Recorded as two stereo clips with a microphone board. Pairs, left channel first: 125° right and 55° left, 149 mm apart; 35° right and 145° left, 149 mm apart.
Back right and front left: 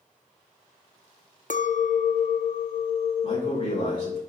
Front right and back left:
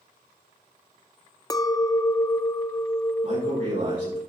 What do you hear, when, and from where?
1.5 s a clink: 100° right, 0.6 m
3.2 s a man speaking: straight behind, 5.5 m